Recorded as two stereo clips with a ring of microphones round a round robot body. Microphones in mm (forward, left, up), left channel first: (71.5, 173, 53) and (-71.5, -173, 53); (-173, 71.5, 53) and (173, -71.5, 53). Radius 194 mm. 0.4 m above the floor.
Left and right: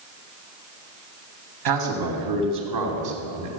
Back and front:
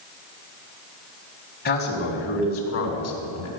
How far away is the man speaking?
About 3 m.